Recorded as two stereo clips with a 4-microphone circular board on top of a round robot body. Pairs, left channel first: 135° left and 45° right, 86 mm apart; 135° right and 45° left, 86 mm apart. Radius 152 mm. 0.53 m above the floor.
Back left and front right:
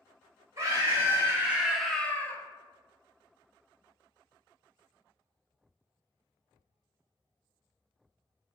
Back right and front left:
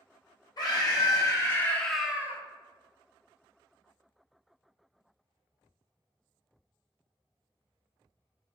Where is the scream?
100° right, 1.1 m; by 2.4 s 90° left, 0.7 m.